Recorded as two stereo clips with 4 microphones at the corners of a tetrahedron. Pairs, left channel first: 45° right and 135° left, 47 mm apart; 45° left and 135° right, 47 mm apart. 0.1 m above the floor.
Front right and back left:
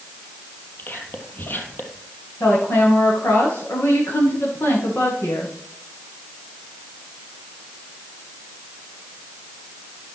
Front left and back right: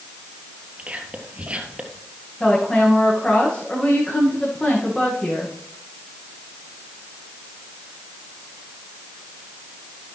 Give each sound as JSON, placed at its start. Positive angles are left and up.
{"t": 0.8, "sound": "whispering", "azimuth_deg": -75, "distance_m": 3.0}
{"t": 2.4, "sound": "a woman speaking", "azimuth_deg": -20, "distance_m": 8.0}